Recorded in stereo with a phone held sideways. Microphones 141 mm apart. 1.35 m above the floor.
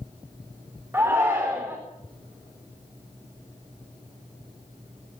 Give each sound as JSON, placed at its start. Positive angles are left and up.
{"t": 0.9, "sound": "a shout", "side_deg": -15, "distance_m": 4.0}